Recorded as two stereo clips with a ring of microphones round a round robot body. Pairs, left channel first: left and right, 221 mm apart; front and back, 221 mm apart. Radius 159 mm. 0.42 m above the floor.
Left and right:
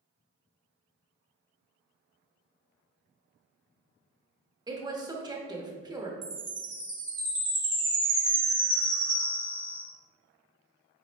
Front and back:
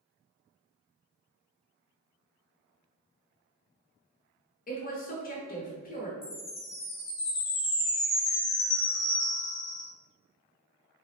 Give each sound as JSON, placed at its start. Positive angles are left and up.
{"t": 4.7, "sound": "a woman speaking", "azimuth_deg": -25, "distance_m": 0.9}
{"t": 6.2, "sound": "a chime", "azimuth_deg": -55, "distance_m": 1.6}